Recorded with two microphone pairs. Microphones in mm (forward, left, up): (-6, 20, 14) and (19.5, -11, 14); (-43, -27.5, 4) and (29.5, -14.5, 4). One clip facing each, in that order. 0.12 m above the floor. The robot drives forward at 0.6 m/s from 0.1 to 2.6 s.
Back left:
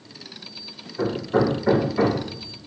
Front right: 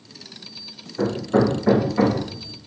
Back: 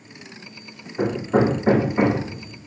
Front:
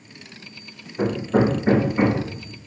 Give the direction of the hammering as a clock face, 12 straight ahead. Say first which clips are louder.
Front right 2 dB, even; 4 o'clock.